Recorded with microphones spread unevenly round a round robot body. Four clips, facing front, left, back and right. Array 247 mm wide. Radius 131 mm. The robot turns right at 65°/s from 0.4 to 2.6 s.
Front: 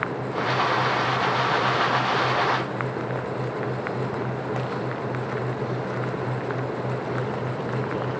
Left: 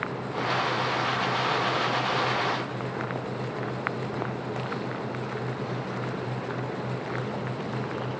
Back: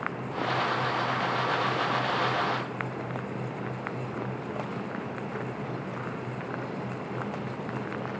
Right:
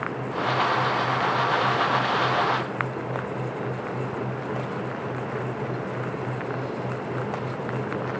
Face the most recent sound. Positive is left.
No sound to turn to.